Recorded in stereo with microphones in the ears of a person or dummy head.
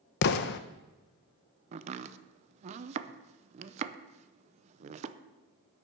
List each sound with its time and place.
0.2 s an explosion: 55° left (ahead or behind), 0.6 m
1.7 s chopping: 35° right (ahead or behind), 0.6 m